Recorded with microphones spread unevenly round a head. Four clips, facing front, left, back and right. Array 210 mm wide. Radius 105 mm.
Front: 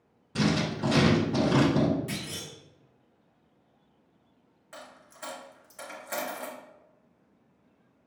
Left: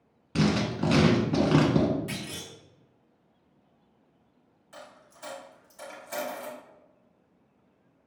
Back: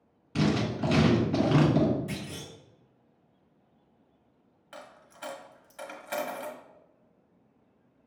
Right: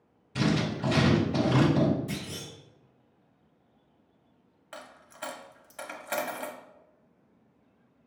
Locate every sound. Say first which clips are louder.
0.3 s writing: left 2 dB, even; 90° left, 1.5 m
2.1 s a clunk: right 1 dB, even; 55° left, 1.4 m
4.7 s a dropped coin: right 2 dB, even; 75° right, 0.8 m